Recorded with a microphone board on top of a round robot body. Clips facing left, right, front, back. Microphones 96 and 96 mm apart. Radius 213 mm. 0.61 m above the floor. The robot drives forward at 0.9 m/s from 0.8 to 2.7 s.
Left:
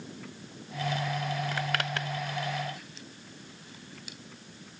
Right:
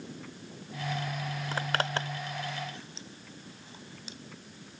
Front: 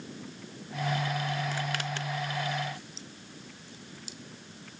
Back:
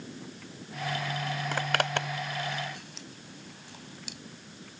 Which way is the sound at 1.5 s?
145° right.